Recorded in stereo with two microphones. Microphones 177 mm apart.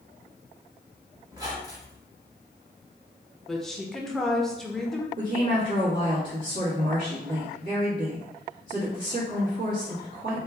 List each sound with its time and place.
1.3 s a squeak: 20° right (ahead or behind), 1.0 m
3.5 s a woman speaking: centre (ahead or behind), 0.6 m
5.2 s a woman speaking: 60° right (ahead or behind), 1.4 m